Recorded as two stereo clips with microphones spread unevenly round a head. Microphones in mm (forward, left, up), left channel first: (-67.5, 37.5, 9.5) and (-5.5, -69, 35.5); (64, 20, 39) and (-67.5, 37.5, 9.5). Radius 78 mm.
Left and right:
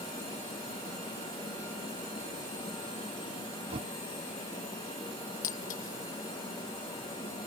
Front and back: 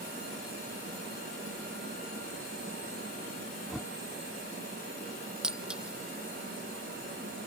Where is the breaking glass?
90° left.